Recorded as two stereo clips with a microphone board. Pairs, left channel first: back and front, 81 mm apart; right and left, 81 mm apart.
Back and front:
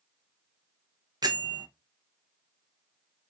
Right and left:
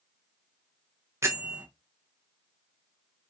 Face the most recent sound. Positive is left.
turn(degrees=35)